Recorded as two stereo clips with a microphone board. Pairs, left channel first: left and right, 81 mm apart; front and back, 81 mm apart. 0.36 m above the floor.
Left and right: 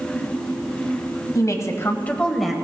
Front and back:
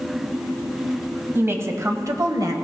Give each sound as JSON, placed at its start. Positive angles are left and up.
{"t": 1.4, "sound": "a woman speaking", "azimuth_deg": 125, "distance_m": 2.0}